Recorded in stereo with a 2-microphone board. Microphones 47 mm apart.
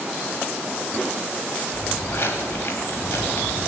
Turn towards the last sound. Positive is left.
turn(degrees=70)  # may be behind; listen again after turning